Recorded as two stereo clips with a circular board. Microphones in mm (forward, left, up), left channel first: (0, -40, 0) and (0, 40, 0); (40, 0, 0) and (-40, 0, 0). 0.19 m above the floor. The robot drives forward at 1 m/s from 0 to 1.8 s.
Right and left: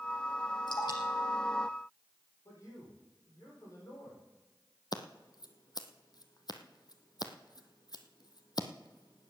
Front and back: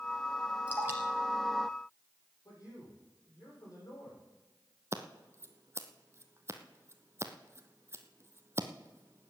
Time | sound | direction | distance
0.7 | dripping | 110° right | 2.5 m
2.5 | a man speaking | 40° right | 7 m
4.9 | scissors | 125° right | 1.1 m